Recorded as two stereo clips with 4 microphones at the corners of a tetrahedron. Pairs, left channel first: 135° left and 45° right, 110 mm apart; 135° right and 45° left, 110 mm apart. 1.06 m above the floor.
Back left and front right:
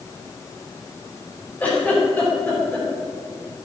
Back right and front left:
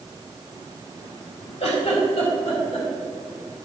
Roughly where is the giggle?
Behind right.